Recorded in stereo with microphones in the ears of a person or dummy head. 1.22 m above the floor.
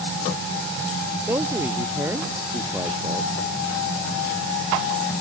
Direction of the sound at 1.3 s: 20° right (ahead or behind).